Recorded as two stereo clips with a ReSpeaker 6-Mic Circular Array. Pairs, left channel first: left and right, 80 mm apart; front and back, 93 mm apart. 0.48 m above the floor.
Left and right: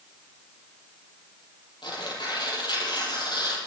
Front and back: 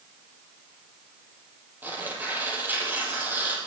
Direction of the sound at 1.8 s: 110° left.